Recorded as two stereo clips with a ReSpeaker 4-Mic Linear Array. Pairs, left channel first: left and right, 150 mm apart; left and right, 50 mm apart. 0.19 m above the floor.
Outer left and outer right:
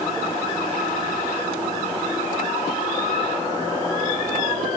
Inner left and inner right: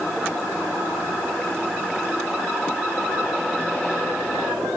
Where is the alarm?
No alarm in this recording.